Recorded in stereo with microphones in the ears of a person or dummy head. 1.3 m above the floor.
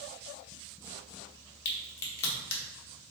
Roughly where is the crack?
Left.